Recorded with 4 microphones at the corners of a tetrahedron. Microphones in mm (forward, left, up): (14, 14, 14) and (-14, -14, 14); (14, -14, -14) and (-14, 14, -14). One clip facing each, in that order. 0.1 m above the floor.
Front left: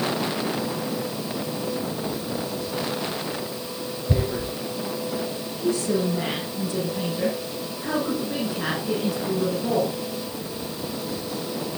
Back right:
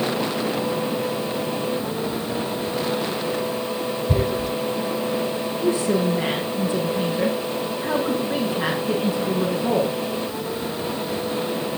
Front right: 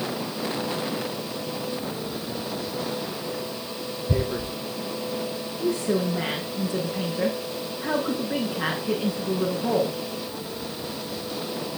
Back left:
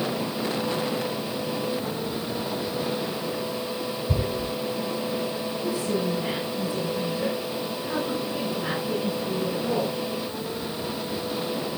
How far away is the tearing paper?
About 4 m.